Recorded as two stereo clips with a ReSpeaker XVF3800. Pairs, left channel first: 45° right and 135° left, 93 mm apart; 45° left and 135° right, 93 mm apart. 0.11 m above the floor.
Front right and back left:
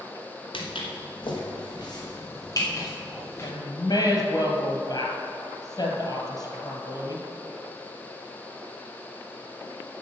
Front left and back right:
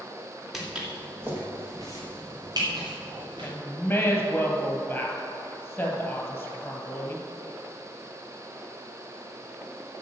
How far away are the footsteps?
About 3 m.